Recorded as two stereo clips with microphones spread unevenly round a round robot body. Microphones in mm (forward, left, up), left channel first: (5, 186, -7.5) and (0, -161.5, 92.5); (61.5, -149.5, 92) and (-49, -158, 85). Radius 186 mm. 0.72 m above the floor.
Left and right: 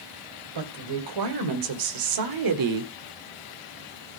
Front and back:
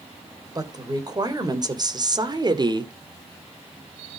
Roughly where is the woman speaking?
Behind right.